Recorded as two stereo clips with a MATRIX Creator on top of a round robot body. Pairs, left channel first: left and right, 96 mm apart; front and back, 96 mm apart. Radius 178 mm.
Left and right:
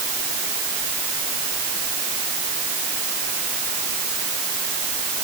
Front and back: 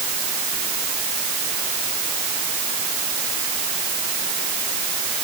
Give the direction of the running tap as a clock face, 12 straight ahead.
I don't hear a running tap.